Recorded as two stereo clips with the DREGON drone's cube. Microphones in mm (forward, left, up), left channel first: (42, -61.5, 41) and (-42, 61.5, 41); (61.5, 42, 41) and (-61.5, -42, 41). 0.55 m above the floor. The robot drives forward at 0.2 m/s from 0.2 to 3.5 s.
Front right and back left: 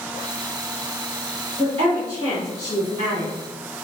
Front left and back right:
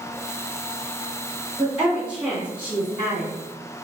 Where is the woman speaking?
135° left, 1.1 m; by 3.3 s 150° left, 1.3 m.